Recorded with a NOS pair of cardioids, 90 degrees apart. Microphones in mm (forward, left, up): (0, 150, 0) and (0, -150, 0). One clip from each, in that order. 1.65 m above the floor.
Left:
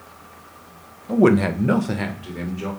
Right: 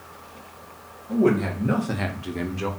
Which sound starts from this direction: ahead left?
A man speaking, at 1.1 s.